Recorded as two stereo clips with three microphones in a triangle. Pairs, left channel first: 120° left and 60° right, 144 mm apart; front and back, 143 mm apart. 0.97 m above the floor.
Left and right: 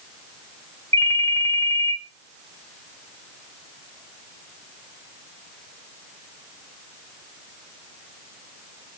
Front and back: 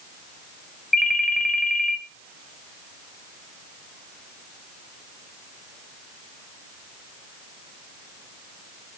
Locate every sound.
0.9 s a ringtone: 5° right, 2 m